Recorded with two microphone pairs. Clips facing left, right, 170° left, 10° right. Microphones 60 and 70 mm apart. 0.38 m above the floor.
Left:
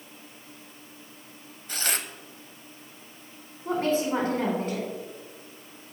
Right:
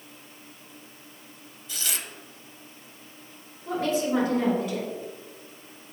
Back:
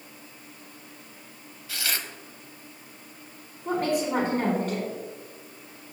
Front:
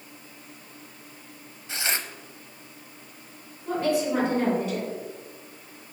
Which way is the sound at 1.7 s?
55° left.